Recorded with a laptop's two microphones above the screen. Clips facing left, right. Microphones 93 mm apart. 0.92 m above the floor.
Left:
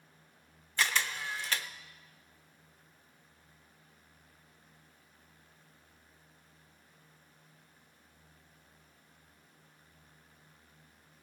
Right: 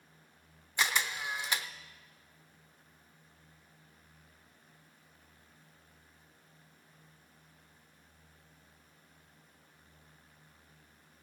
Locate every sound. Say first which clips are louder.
0.8 s a camera shutter: even; 15° right (ahead or behind), 0.7 m